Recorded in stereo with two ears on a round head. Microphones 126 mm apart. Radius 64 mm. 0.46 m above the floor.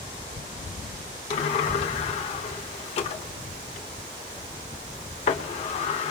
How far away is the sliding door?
About 1.2 m.